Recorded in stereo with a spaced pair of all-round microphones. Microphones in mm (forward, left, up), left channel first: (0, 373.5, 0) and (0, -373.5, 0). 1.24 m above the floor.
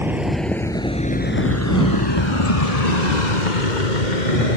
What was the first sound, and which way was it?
A vehicle, 5° right (ahead or behind).